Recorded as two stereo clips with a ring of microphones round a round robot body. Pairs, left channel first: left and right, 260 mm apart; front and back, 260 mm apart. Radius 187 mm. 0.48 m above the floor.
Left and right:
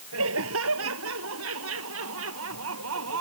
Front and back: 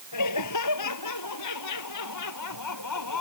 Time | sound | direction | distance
0.1 | laughter | 35° right | ?